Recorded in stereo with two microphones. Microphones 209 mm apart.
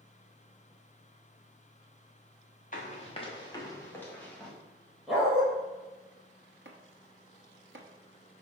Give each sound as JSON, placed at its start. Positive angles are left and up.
{"t": 2.7, "sound": "running footsteps", "side_deg": 40, "distance_m": 1.6}
{"t": 5.1, "sound": "a dog barking", "side_deg": 0, "distance_m": 2.0}
{"t": 6.7, "sound": "chopping", "side_deg": -70, "distance_m": 1.0}